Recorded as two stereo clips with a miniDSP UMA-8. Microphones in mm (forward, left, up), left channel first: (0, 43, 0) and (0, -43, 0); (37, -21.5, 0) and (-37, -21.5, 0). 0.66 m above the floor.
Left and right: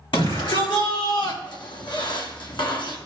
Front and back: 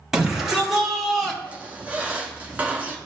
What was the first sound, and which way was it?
A shout, 95° left.